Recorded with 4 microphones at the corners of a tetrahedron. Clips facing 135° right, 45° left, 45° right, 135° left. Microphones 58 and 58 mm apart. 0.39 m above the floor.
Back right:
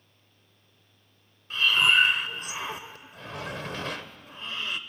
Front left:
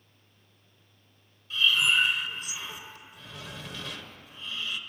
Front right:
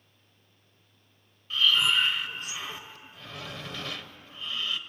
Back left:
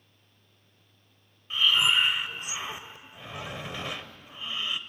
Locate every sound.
1.5 s breathing: 160° right, 0.8 m